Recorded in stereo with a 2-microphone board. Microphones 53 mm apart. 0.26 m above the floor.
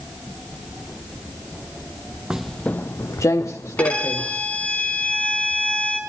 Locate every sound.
2.3 s footsteps: 15° right (ahead or behind), 0.5 m; by 4.4 s 80° left, 2 m
3.8 s a violin: 25° left (ahead or behind), 3 m